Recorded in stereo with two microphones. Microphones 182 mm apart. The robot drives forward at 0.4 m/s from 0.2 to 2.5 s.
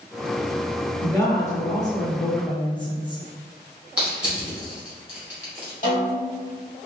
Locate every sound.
1.0 s a woman speaking: 15° left (ahead or behind), 1.7 m; by 3.2 s 25° left (ahead or behind), 1.1 m
4.0 s crushing: 5° right (ahead or behind), 2.0 m
5.8 s a snare drum: 50° left (ahead or behind), 1.6 m